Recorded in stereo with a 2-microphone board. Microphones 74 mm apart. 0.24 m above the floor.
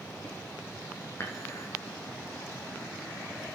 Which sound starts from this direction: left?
Dishes clattering, at 1.2 s.